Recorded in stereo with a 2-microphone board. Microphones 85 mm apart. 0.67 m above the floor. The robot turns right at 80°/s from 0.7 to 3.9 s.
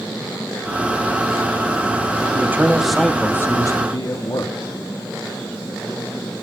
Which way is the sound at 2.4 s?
45° right.